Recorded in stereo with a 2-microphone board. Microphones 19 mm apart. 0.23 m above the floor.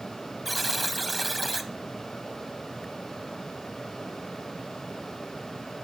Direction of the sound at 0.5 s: 5° left (ahead or behind).